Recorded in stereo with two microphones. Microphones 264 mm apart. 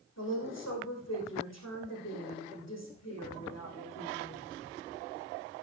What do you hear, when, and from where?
0.2 s a woman speaking: 75° left (ahead or behind), 5.5 m